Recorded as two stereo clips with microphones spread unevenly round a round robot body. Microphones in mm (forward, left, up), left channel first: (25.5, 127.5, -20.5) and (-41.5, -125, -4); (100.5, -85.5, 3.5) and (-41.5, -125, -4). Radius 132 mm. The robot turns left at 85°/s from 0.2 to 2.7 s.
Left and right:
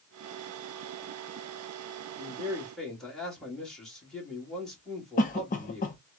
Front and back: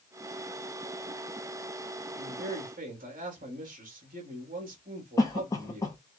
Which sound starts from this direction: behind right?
A man speaking, at 2.2 s.